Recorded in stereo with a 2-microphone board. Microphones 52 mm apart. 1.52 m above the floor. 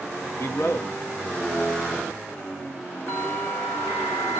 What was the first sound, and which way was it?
A man speaking, 65° left (ahead or behind).